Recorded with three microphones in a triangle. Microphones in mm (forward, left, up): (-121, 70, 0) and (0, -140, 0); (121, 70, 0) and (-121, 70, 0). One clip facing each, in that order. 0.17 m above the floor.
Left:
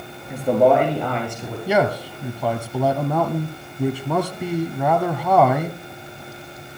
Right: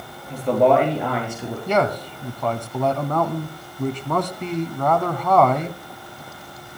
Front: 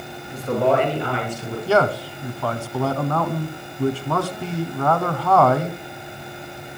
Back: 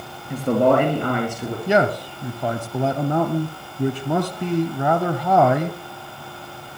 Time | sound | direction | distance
0.3 | a man speaking | 160° right | 3.5 m
1.7 | a man speaking | 175° right | 1.1 m